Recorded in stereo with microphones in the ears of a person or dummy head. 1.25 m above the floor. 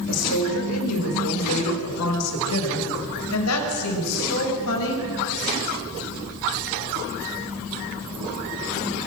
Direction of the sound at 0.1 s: 75° left (ahead or behind).